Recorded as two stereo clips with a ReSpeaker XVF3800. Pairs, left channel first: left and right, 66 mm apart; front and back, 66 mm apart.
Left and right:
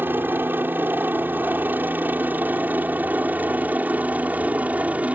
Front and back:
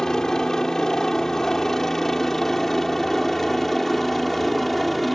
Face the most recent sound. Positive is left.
turn(degrees=-85)